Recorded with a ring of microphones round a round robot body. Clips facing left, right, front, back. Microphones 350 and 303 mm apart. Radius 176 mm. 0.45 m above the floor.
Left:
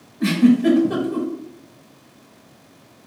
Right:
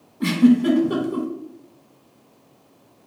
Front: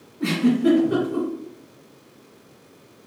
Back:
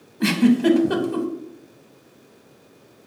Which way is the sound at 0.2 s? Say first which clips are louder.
Left 1 dB, back 2 dB; 175° right.